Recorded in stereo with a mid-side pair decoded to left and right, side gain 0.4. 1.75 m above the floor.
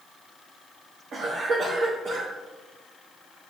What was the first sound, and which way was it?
A cough, 60° right.